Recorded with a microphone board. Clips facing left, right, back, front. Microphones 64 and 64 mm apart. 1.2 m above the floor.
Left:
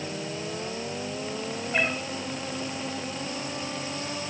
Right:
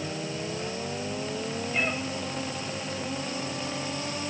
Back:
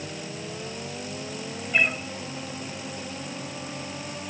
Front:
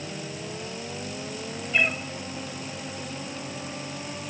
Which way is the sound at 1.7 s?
100° left.